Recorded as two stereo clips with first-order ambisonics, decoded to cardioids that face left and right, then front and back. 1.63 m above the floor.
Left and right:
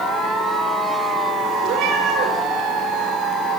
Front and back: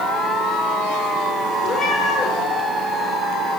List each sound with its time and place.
1.6 s a cat meowing: 50° right, 8.5 m